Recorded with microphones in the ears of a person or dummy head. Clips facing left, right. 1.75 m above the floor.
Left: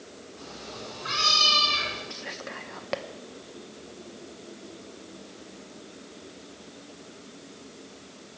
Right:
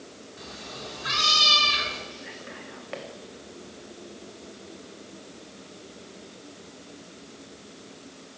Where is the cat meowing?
30° right (ahead or behind), 1.7 m.